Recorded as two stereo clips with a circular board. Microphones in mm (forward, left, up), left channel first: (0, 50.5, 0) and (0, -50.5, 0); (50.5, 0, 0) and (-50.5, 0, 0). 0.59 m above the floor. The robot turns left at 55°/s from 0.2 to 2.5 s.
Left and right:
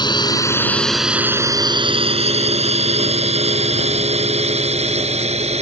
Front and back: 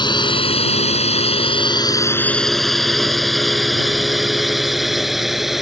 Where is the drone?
45° left; by 5.6 s 90° right.